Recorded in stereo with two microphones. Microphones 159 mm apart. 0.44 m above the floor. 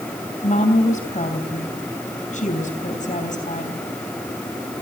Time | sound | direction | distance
0.4 | a woman speaking | 55° left (ahead or behind) | 3.5 m